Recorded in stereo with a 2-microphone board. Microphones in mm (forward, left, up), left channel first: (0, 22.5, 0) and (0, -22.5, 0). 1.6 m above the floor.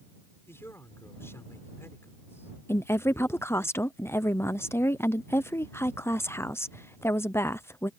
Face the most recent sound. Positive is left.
turn(degrees=75)  # may be behind; listen again after turning